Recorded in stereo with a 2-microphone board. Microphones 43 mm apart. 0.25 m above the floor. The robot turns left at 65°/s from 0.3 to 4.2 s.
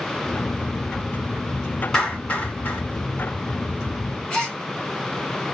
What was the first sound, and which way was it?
A clap, 10° left (ahead or behind).